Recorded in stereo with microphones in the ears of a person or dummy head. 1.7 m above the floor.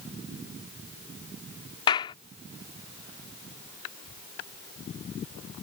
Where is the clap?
30° left (ahead or behind).